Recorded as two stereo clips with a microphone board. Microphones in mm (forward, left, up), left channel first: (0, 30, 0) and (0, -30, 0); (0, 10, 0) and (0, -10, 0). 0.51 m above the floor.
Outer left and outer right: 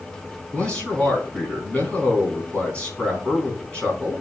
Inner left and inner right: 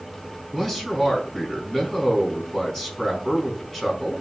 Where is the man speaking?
15° left (ahead or behind), 4.5 m.